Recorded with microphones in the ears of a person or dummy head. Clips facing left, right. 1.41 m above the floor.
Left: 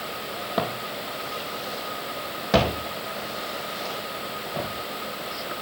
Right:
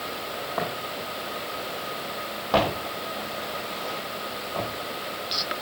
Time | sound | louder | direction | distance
0.6 | footsteps | left 4 dB | 40° left (ahead or behind) | 3 m